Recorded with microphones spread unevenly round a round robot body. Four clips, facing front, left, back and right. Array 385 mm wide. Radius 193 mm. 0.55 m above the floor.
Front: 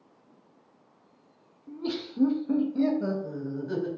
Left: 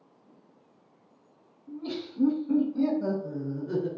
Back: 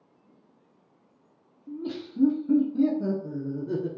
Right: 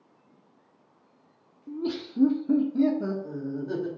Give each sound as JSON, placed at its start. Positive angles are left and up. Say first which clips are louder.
{"t": 1.7, "sound": "laughter", "louder": "right 4 dB, front 1 dB", "azimuth_deg": -100, "distance_m": 1.1}